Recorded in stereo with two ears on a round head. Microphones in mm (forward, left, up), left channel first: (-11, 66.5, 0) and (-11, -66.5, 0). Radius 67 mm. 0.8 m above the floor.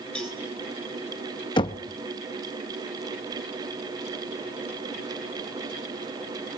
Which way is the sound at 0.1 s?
5° left (ahead or behind).